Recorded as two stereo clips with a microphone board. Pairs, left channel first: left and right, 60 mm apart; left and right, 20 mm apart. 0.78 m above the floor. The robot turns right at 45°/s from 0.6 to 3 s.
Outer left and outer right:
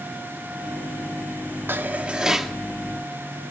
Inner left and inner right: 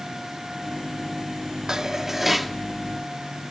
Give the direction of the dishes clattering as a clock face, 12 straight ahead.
1 o'clock.